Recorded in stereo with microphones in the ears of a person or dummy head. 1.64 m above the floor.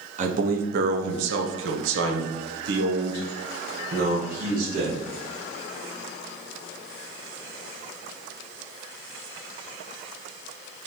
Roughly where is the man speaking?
Right.